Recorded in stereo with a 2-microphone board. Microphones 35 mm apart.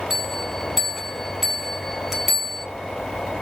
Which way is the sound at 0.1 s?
Centre (ahead or behind).